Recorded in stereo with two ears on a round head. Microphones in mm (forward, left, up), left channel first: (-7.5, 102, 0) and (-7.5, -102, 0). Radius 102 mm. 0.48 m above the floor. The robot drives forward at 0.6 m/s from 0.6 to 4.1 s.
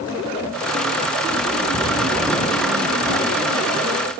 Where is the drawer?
5° left (ahead or behind), 0.9 m; by 4.2 s centre (ahead or behind), 2 m.